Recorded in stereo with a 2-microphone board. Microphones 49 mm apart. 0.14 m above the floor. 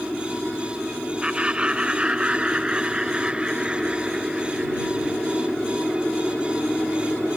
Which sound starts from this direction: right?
Laughter, at 1.2 s.